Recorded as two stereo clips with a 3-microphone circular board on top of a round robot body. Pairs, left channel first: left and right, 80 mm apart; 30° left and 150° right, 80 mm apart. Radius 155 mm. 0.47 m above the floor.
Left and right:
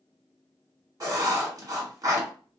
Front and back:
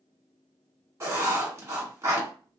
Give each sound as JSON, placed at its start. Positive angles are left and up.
{"t": 1.0, "sound": "writing", "azimuth_deg": -110, "distance_m": 1.7}